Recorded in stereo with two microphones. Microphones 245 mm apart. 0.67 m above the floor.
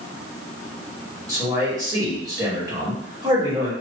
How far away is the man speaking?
About 1.5 m.